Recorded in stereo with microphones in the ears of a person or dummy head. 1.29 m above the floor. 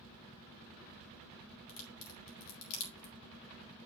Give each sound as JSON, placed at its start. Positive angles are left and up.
{"t": 1.7, "sound": "a crack", "side_deg": 70, "distance_m": 2.0}